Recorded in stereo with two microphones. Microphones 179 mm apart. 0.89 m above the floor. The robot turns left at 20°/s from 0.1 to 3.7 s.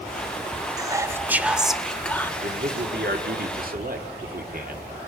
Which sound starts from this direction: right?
A man speaking, at 2.4 s.